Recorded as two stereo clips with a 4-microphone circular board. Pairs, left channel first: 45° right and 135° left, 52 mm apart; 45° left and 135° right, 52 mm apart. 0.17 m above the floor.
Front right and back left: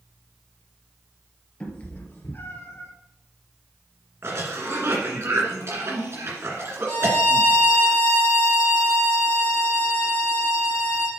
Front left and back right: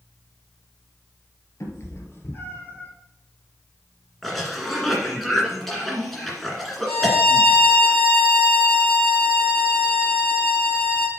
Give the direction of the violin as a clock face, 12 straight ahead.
8 o'clock.